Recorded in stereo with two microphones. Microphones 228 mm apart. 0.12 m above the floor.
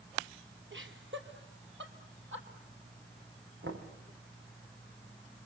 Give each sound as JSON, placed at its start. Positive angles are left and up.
{"t": 0.7, "sound": "laughter", "side_deg": -60, "distance_m": 3.0}
{"t": 3.6, "sound": "knocking", "side_deg": -70, "distance_m": 4.0}